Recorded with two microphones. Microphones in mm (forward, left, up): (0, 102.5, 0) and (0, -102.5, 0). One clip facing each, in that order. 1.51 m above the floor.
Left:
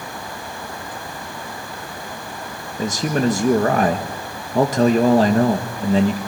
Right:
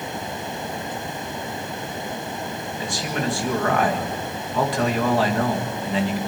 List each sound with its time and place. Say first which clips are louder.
2.8 s a man speaking: left 8 dB; 45° left (ahead or behind), 1.8 m